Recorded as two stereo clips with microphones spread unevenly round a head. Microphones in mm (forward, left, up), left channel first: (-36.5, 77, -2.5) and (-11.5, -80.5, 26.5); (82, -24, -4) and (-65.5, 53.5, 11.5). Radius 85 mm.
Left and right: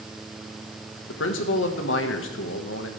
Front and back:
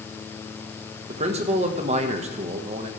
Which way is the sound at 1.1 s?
105° left.